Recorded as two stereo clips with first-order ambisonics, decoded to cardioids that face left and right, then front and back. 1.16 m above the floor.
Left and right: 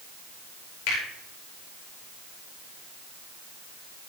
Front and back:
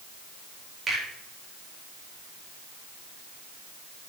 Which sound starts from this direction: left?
A finger snap, at 0.9 s.